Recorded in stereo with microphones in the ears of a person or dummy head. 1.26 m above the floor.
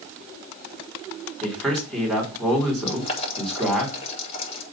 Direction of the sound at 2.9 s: 35° left (ahead or behind).